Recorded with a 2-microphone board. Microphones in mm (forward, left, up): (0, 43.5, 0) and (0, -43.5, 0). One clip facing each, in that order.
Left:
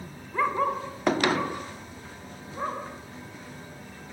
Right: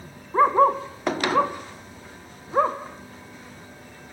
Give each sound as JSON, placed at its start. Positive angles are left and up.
{"t": 0.3, "sound": "a dog barking", "side_deg": -40, "distance_m": 2.5}